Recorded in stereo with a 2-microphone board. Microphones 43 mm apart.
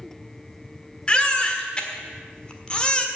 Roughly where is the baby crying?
Left.